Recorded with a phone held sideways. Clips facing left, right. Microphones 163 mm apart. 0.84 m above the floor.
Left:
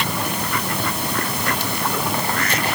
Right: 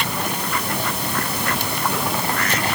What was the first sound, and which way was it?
Only background noise.